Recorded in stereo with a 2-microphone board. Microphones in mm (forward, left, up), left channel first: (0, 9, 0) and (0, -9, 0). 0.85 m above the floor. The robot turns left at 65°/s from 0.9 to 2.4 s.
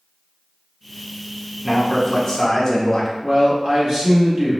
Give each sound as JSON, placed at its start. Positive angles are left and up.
{"t": 1.6, "sound": "a man speaking", "azimuth_deg": -170, "distance_m": 0.7}
{"t": 3.2, "sound": "a man speaking", "side_deg": -40, "distance_m": 1.1}